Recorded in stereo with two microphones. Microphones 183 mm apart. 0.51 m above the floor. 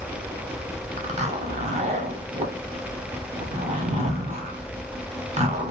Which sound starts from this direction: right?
A zipper, at 1.0 s.